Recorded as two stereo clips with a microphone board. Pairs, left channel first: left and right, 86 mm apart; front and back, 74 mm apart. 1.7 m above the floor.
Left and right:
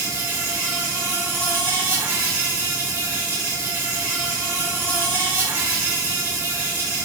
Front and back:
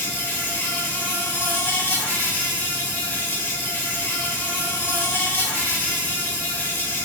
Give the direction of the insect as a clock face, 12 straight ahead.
2 o'clock.